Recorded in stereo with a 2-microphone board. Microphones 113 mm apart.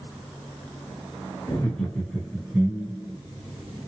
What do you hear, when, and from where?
1.5 s laughter: 25° left (ahead or behind), 1.3 m; by 3.2 s 30° right (ahead or behind), 1.7 m